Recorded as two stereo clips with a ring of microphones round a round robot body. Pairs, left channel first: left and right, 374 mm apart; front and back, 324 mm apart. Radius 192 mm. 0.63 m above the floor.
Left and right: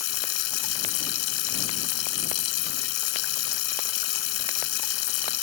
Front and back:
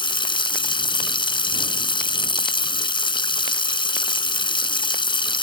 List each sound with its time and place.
0.0 s running water: 75° left